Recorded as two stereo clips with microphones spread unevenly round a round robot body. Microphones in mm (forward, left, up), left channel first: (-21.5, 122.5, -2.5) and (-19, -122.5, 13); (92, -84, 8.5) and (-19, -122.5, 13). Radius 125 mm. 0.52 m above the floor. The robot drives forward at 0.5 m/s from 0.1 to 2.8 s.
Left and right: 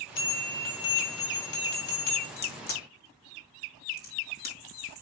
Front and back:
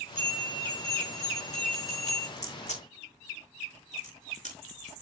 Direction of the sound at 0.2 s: 115° left.